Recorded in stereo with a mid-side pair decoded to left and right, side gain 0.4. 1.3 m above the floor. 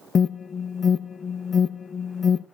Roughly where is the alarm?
Ahead left.